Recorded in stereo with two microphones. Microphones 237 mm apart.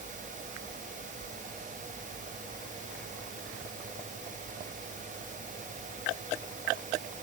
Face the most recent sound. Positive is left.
No sound to turn to.